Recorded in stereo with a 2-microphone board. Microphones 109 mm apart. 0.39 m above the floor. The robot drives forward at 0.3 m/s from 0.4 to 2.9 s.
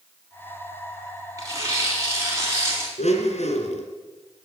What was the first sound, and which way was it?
Tearing paper, 30° right (ahead or behind).